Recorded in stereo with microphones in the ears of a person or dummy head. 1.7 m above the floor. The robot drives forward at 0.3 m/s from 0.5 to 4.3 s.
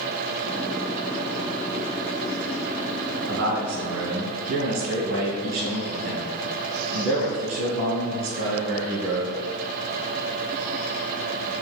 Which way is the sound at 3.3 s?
65° right (ahead or behind).